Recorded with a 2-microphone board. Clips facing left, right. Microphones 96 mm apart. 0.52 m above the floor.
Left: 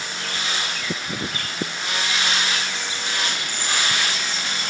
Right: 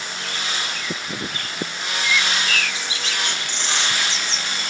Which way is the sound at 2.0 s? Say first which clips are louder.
Right 3 dB; 85° right.